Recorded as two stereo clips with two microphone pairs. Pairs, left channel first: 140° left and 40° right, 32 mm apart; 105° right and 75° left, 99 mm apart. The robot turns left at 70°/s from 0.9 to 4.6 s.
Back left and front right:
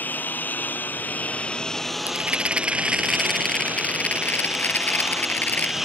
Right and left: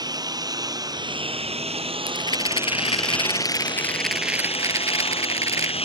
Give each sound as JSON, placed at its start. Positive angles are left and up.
{"t": 0.0, "sound": "a lawn mower", "azimuth_deg": 125}
{"t": 2.1, "sound": "a rattle", "azimuth_deg": -50}